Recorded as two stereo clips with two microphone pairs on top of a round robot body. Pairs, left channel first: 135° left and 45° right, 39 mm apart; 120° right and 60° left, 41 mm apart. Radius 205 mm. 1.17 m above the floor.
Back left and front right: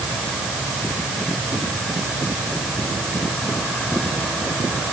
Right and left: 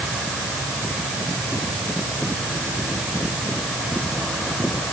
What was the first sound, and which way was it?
Only background noise.